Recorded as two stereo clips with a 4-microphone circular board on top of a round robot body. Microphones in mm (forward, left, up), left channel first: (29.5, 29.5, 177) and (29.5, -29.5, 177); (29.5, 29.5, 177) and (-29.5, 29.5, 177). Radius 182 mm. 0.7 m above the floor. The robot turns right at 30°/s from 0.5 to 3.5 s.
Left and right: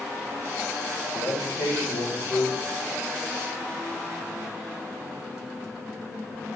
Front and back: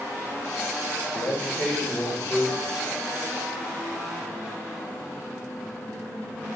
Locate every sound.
1.1 s a man speaking: 55° left, 4 m; by 2.6 s 100° left, 4 m